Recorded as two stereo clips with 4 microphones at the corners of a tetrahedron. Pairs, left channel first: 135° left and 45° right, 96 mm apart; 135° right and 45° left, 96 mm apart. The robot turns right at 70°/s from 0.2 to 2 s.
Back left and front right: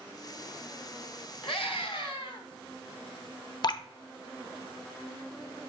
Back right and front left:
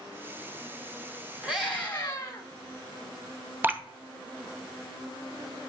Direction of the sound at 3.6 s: 110° left.